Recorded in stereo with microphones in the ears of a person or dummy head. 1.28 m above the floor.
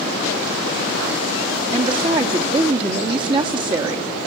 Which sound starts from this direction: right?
A woman speaking, at 1.7 s.